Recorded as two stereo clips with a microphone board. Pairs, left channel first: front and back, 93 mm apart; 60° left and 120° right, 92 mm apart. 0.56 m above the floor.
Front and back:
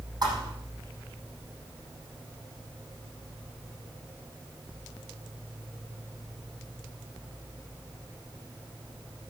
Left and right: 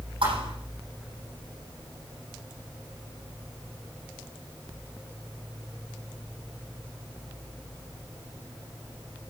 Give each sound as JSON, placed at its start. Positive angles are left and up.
{"t": 0.2, "sound": "a thud", "azimuth_deg": -135, "distance_m": 7.5}